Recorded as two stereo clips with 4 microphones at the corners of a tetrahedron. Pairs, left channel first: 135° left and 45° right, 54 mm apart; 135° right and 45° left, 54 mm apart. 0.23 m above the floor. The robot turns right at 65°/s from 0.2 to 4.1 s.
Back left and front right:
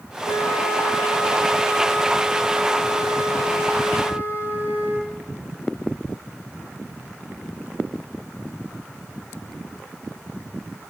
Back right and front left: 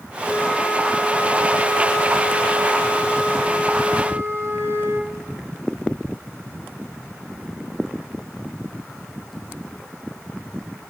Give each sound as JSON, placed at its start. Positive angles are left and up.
{"t": 0.2, "sound": "a flute", "azimuth_deg": 120, "distance_m": 4.0}